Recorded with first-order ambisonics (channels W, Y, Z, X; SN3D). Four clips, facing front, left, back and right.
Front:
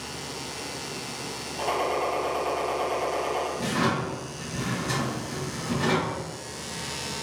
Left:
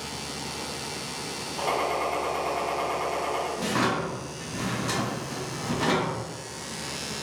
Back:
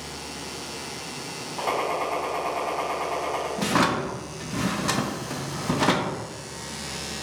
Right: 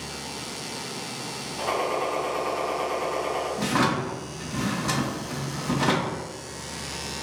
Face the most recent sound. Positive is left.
turn(degrees=-165)